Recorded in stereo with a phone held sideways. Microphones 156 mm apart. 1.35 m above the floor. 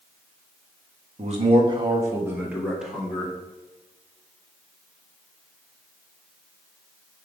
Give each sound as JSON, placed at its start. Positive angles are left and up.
{"t": 1.2, "sound": "a man speaking", "side_deg": -45, "distance_m": 1.5}